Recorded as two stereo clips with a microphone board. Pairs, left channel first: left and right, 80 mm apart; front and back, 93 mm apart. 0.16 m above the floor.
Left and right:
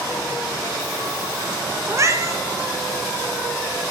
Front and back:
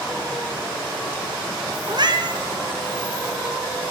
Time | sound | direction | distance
1.9 | a cat meowing | 140° right | 0.8 m